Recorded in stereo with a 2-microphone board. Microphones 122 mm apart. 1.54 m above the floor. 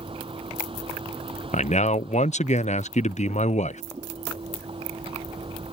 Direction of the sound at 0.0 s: 50° right (ahead or behind).